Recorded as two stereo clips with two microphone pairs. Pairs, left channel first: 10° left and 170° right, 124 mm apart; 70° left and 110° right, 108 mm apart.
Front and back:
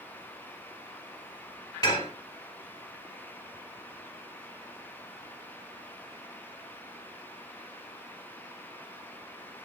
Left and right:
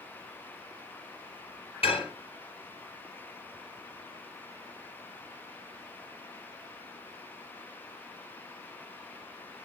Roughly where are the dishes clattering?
Left.